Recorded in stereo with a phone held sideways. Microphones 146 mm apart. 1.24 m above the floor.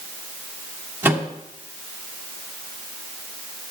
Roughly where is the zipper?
I don't hear a zipper.